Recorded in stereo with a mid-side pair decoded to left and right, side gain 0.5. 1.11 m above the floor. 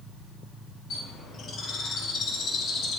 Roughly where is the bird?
Ahead left.